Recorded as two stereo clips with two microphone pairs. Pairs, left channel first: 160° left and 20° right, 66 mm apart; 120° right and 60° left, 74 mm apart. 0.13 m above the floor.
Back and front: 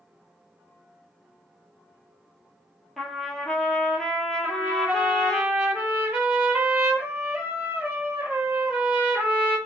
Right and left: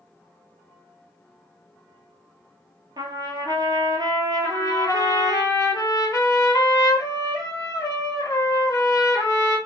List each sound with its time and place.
3.0 s a trumpet: 80° left, 0.7 m
4.4 s a trumpet: 80° right, 1.0 m